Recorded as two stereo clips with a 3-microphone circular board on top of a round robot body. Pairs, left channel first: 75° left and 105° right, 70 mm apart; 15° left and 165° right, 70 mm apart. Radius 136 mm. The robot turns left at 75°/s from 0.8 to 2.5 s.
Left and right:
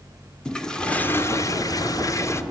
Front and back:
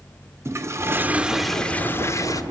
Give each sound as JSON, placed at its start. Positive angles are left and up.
{"t": 0.5, "sound": "a toilet flushing", "azimuth_deg": 155, "distance_m": 2.0}